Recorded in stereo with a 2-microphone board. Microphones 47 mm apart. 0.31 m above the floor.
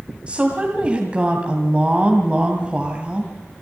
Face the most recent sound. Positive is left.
turn(degrees=-25)  # may be behind; listen again after turning